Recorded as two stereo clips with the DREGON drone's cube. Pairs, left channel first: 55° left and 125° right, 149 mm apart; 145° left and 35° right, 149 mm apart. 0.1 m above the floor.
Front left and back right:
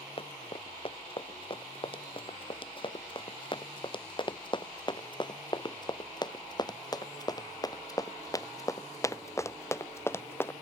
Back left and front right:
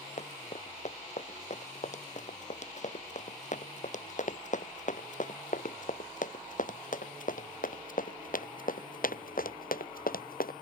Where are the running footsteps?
105° left; by 10.5 s 130° left.